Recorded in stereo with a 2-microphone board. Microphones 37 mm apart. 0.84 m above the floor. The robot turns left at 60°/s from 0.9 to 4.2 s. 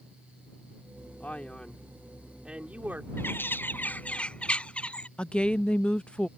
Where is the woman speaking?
35° left (ahead or behind).